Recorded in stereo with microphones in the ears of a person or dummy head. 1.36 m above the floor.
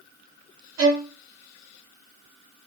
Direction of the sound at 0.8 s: 75° right (ahead or behind).